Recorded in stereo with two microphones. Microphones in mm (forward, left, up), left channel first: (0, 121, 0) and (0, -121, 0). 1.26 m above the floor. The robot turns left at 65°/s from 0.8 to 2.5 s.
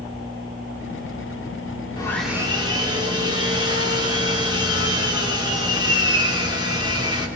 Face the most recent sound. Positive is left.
turn(degrees=-20)